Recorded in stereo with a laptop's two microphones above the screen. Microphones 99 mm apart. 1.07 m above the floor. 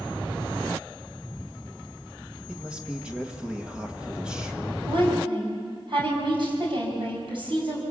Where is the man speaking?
10° right (ahead or behind), 1.4 m.